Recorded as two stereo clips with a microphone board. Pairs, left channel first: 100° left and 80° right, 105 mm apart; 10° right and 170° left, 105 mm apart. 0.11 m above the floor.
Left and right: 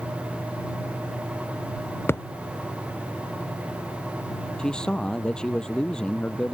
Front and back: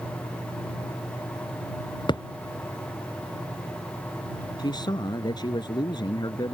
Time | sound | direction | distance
2.1 | a thud | 35° left | ?
4.6 | a man speaking | 20° left | ?